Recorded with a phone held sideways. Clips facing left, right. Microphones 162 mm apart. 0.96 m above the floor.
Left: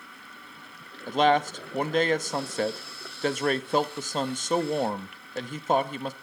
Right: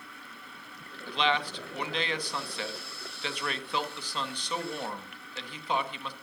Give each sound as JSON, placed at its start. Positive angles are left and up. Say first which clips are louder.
{"t": 1.1, "sound": "a man speaking", "louder": "left 8 dB", "side_deg": 45, "distance_m": 1.1}